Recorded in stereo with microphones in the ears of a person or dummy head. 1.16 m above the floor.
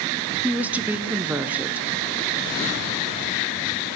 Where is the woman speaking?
15° right (ahead or behind), 0.6 m.